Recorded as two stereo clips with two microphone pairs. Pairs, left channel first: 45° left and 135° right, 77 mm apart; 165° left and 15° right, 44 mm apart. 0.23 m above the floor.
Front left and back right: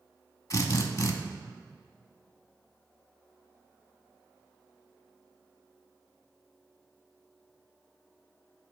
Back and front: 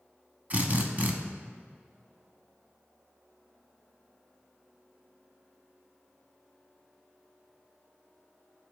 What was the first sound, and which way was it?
A drill, 25° left.